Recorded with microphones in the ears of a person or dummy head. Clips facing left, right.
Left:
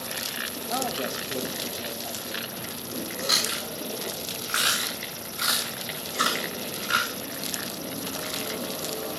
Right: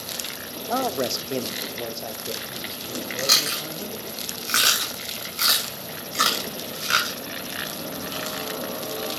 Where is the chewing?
40° right (ahead or behind), 2.5 m.